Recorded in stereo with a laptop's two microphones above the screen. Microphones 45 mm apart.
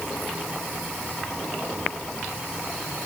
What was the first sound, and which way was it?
Only background noise.